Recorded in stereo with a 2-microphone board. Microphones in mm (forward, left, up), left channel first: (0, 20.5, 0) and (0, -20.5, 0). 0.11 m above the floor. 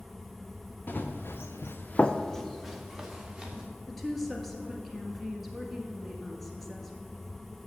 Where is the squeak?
No squeak in this recording.